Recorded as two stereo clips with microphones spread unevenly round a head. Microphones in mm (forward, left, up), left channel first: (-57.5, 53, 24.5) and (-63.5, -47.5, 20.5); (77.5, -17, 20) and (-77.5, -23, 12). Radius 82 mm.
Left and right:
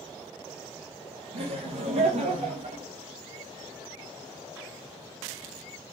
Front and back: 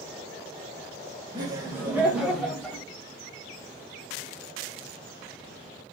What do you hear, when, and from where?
1.3 s laughter: 115° right, 1.1 m; by 2.8 s 85° right, 1.6 m